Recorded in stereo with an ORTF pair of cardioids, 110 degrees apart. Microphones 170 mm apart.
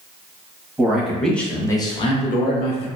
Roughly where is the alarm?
No alarm in this recording.